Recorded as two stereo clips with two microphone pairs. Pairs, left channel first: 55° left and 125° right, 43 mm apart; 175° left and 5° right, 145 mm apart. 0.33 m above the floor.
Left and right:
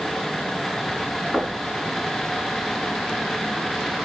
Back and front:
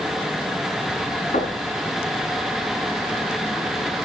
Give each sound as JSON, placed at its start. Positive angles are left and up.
{"t": 1.3, "sound": "knocking", "azimuth_deg": 155, "distance_m": 3.0}